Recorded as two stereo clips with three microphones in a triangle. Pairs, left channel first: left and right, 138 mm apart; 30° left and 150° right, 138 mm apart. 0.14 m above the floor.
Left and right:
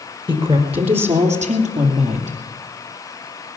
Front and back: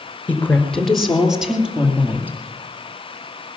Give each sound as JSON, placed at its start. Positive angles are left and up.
{"t": 0.3, "sound": "a woman speaking", "azimuth_deg": -45, "distance_m": 2.5}